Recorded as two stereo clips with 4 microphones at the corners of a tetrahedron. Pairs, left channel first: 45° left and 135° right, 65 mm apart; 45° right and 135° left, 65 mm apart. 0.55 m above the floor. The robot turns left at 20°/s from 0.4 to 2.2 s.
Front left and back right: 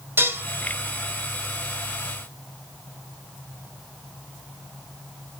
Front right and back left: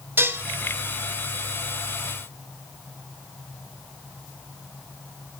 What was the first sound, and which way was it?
Dishes clattering, straight behind.